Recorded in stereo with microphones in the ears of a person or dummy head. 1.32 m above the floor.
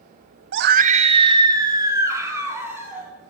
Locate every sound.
0.5 s a scream: 65° right (ahead or behind), 0.6 m; by 3.1 s 15° right (ahead or behind), 4 m